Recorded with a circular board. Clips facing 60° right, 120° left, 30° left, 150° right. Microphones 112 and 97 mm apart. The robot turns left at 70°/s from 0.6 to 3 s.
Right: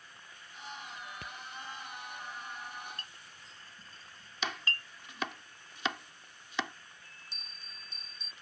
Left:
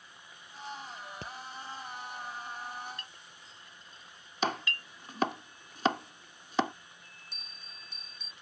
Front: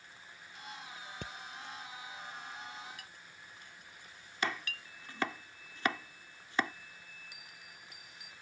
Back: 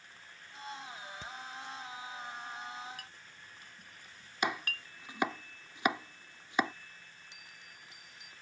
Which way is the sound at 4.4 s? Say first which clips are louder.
Left 6 dB, back 2 dB; 145° left.